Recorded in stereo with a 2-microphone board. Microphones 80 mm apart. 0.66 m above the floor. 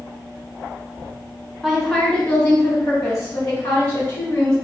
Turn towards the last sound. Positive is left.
turn(degrees=50)  # may be behind; listen again after turning